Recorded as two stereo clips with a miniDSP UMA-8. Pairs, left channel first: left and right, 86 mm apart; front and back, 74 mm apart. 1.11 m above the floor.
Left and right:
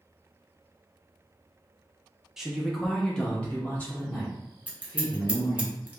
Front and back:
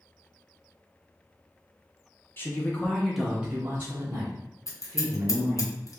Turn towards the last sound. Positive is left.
turn(degrees=-20)